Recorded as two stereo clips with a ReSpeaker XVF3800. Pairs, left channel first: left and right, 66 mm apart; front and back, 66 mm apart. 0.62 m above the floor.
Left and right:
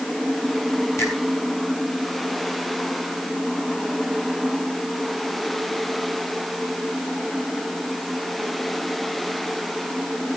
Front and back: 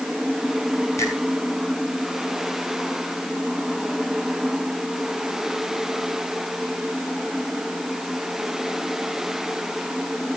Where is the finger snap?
40° left, 6 m.